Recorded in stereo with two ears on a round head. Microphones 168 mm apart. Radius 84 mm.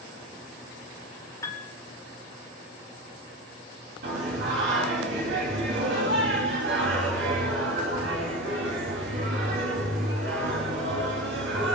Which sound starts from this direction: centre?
A piano, at 1.4 s.